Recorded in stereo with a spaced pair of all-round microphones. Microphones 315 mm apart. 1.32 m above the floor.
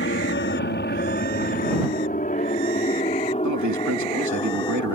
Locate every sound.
0.0 s an aircraft: 40° left (ahead or behind); by 5.0 s 15° left (ahead or behind)
3.4 s a man speaking: 65° right (ahead or behind)